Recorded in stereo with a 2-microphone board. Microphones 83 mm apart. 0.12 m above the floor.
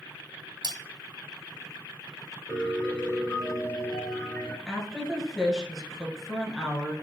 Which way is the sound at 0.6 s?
65° right (ahead or behind).